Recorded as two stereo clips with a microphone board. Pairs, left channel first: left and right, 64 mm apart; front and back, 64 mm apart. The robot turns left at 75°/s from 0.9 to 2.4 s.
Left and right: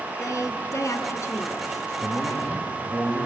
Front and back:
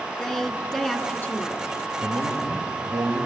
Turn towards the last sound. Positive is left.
turn(degrees=180)